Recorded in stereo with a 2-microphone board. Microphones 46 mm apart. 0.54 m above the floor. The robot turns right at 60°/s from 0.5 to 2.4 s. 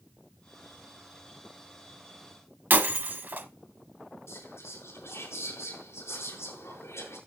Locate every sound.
2.7 s breaking glass: 45° right (ahead or behind), 1.3 m
4.3 s whispering: 65° left (ahead or behind), 6 m